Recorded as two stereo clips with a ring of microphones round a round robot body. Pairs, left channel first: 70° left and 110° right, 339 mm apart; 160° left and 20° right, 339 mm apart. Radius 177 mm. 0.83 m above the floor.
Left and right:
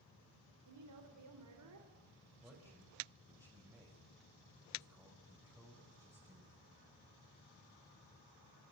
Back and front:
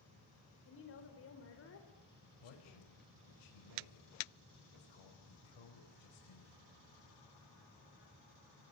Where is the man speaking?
165° left, 5 m.